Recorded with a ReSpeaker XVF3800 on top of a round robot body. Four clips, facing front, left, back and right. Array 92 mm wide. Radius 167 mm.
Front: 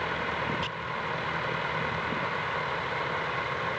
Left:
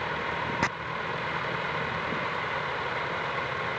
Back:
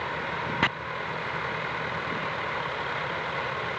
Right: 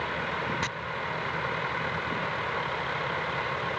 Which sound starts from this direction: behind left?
Chopping, at 0.6 s.